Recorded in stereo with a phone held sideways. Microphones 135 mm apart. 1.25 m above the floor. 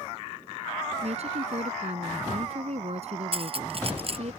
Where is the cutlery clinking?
45° right (ahead or behind).